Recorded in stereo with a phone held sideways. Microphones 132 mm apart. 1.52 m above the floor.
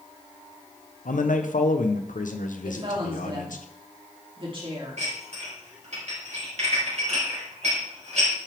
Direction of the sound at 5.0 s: 60° right (ahead or behind).